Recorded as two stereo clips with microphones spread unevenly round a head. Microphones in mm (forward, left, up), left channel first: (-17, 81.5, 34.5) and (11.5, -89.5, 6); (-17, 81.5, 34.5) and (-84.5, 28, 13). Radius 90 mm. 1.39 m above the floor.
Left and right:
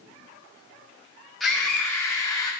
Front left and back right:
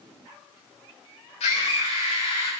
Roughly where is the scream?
Ahead.